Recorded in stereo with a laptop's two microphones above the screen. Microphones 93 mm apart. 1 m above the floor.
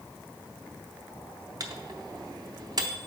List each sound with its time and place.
1.6 s a microwave: 40° right (ahead or behind), 0.6 m